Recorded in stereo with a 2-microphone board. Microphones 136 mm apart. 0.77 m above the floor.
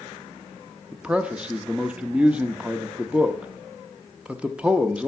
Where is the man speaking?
10° right (ahead or behind), 0.6 m.